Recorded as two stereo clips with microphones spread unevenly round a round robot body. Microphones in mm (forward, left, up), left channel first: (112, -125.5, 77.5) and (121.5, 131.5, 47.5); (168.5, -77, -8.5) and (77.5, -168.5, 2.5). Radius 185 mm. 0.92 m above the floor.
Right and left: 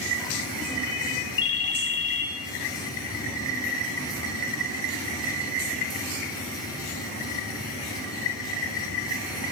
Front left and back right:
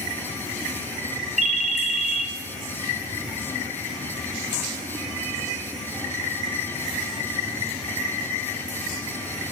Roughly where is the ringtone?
Right.